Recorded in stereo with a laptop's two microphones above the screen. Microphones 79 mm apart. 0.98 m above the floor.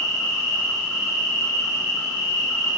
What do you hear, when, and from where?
0.0 s an insect: 40° left (ahead or behind), 1.1 m